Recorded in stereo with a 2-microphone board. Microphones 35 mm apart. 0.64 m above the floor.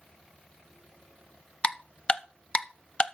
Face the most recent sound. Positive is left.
turn(degrees=25)  # may be behind; listen again after turning